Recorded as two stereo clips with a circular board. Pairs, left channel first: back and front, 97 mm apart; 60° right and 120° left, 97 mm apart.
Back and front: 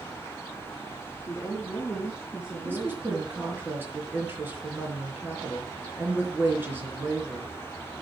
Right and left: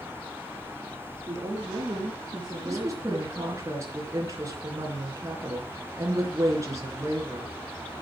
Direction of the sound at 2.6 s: 65° left.